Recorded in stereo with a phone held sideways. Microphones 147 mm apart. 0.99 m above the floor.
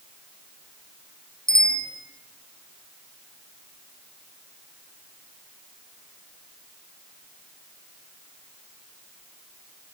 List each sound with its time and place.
1.5 s a bicycle bell: 90° left, 7 m